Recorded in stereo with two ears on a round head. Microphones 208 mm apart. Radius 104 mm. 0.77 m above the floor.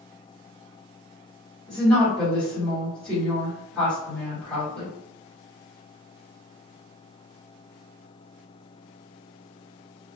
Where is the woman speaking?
5° left (ahead or behind), 1.4 m.